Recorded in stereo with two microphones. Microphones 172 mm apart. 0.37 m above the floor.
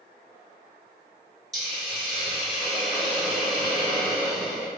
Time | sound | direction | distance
1.5 | a hiss | centre (ahead or behind) | 1.7 m